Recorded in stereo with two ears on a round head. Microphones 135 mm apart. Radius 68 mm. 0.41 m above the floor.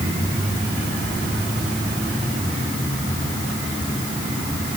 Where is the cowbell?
No cowbell in this recording.